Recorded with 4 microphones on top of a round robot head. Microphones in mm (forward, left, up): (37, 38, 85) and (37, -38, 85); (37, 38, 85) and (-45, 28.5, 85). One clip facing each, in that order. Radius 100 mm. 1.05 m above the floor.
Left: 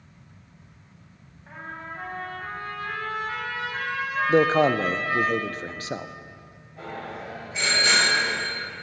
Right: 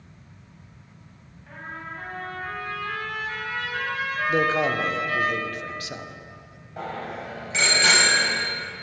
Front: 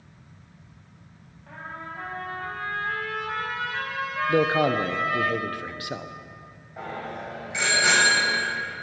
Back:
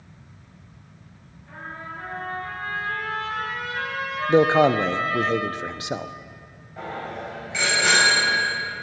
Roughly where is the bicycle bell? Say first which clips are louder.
Right 3 dB, back 2 dB; right.